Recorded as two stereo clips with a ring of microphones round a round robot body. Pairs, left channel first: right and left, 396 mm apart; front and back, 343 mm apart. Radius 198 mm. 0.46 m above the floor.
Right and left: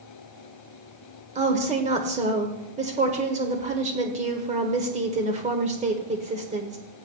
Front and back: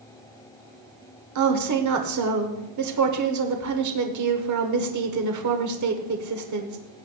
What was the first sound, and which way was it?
A woman speaking, 160° left.